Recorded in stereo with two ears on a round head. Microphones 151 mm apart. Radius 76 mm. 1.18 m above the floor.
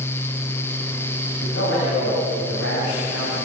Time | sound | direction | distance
1.4 | a man speaking | 90° left | 7.5 m